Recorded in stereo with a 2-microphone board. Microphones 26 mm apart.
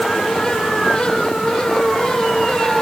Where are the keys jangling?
No keys jangling in this recording.